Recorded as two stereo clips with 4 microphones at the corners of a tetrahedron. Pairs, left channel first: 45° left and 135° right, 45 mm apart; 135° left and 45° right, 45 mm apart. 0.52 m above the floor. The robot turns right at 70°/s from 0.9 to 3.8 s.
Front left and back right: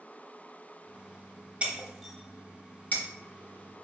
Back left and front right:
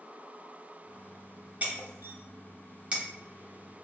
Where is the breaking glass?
80° right, 0.7 m; by 3.0 s 20° left, 0.7 m.